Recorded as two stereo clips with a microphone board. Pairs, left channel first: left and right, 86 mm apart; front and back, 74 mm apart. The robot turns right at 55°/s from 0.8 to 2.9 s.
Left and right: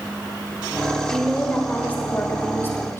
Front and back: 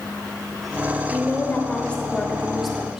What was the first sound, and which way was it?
A woman speaking, 5° left.